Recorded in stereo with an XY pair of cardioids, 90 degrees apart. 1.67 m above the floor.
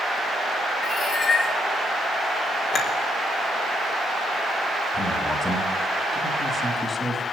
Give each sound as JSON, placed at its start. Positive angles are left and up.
{"t": 0.8, "sound": "a cat meowing", "azimuth_deg": 50, "distance_m": 7.5}
{"t": 2.7, "sound": "a clink", "azimuth_deg": 55, "distance_m": 5.5}
{"t": 4.9, "sound": "a man speaking", "azimuth_deg": 25, "distance_m": 4.0}